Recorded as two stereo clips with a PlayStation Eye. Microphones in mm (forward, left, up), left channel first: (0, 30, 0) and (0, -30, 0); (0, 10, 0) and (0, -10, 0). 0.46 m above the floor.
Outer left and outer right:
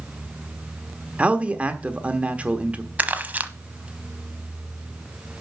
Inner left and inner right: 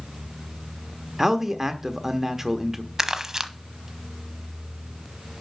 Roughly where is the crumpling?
Right.